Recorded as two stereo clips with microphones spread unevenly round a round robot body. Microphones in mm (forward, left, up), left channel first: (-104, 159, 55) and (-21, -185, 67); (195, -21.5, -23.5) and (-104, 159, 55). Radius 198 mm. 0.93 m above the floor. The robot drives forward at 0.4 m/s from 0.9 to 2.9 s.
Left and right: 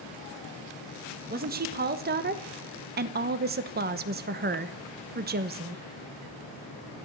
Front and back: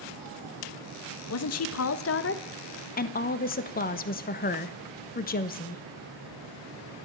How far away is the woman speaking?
About 1.4 m.